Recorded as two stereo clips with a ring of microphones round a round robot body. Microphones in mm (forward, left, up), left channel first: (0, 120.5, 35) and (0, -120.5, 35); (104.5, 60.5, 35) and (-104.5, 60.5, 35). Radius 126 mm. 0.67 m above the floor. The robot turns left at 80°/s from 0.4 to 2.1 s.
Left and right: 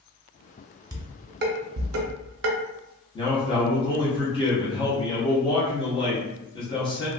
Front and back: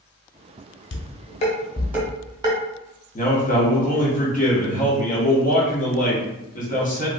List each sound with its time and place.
0.9 s dishes clattering: 15° right, 0.7 m; by 2.6 s 110° right, 0.7 m
3.1 s a man speaking: 30° left, 0.9 m